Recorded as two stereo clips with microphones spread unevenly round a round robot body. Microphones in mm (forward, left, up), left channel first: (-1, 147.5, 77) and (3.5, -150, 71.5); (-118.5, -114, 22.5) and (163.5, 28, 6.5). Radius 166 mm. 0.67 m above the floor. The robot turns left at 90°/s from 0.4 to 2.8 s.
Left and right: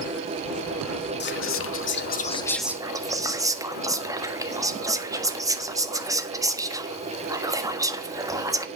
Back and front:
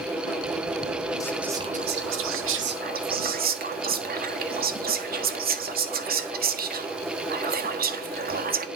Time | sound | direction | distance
1.2 | whispering | 130° left | 1.4 m